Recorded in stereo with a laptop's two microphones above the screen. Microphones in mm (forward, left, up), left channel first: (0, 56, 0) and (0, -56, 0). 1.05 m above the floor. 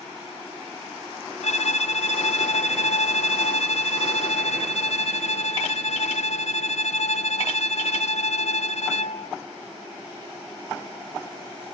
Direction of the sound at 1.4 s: 75° left (ahead or behind).